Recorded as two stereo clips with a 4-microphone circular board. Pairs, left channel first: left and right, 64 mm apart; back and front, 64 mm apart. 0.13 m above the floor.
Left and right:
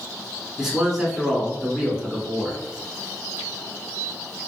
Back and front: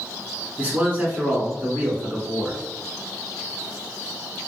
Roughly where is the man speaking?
Ahead.